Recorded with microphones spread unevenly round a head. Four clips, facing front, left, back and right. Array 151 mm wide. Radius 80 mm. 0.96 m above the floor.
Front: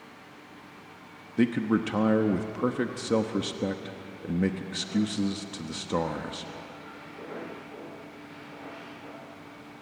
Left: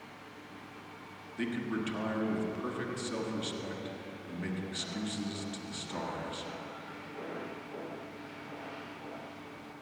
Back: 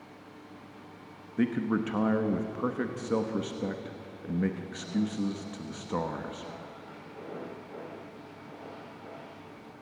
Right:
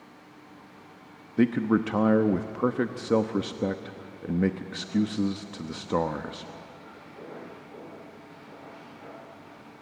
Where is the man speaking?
70° right, 1.0 m.